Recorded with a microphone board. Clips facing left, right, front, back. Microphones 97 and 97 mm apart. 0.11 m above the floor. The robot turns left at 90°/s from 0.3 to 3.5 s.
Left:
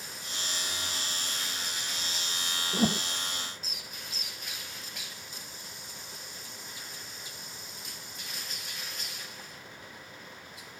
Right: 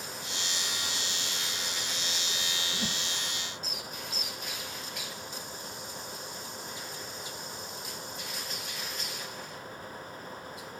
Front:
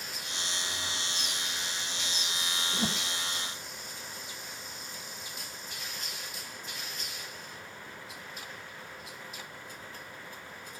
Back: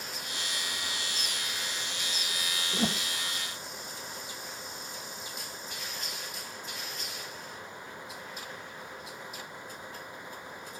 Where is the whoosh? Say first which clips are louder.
Left 13 dB, back 4 dB; 120° left; by 3.1 s 90° left.